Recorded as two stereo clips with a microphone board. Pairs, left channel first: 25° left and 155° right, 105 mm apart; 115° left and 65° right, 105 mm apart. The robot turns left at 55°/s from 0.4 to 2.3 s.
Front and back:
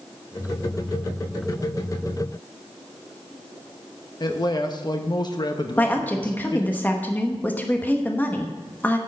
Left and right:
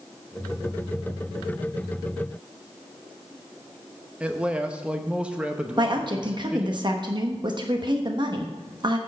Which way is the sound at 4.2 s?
5° left.